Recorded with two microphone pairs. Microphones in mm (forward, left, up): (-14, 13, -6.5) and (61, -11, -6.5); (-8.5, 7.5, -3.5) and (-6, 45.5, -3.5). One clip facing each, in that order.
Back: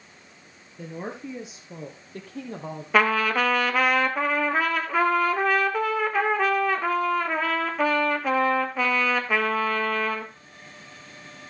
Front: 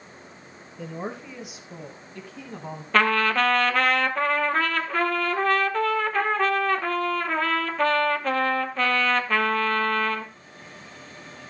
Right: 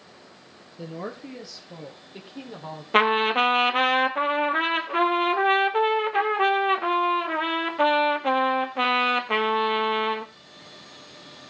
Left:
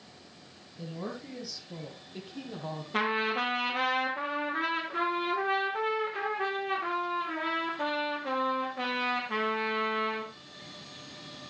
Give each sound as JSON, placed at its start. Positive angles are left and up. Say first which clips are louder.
{"t": 0.8, "sound": "a woman speaking", "louder": "front 1 dB, right 4 dB", "azimuth_deg": -110, "distance_m": 1.9}
{"t": 2.9, "sound": "a trumpet", "louder": "even, right 9 dB", "azimuth_deg": -115, "distance_m": 1.1}